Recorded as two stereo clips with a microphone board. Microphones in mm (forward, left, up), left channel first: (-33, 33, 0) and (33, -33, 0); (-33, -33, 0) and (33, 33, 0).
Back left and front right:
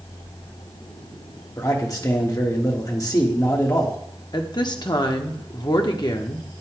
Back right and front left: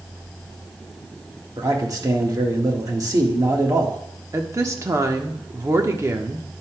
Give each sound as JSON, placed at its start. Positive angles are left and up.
{"t": 1.6, "sound": "a man speaking", "azimuth_deg": 90, "distance_m": 1.5}
{"t": 4.3, "sound": "a woman speaking", "azimuth_deg": 100, "distance_m": 1.1}